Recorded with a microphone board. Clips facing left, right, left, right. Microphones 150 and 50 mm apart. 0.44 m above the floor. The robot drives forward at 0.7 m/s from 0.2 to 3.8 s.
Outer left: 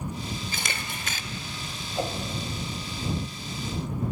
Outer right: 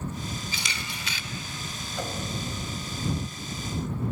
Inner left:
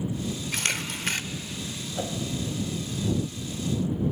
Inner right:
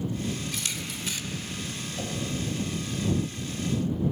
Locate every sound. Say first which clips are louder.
0.5 s a camera shutter: outer left 2 dB, inner left 5 dB; 50° left (ahead or behind), 0.7 m; by 1.2 s 45° left (ahead or behind), 0.7 m
1.9 s a whoosh: outer left 4 dB, inner left 4 dB; 30° left (ahead or behind), 2 m